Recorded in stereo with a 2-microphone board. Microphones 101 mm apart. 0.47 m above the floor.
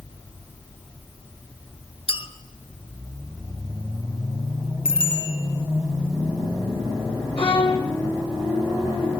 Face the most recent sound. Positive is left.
turn(degrees=65)  # may be behind; listen again after turning